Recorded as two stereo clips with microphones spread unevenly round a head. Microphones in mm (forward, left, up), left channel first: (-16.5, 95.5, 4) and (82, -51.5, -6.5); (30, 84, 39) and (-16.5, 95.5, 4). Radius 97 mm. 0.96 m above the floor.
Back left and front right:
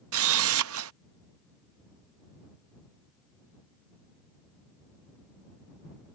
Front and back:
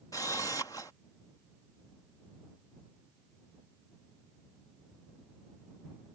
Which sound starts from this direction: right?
A camera shutter, at 0.1 s.